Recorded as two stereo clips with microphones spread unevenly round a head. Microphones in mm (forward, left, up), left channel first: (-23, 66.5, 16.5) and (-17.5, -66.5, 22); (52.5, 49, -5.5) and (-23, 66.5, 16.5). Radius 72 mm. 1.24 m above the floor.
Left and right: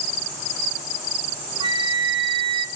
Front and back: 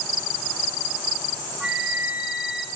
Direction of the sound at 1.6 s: 125° right.